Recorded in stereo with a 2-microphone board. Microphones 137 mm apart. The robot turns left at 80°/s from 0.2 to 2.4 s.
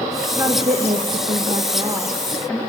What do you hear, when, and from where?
0.3 s a woman speaking: 20° right, 1.9 m; by 2.6 s 175° left, 1.9 m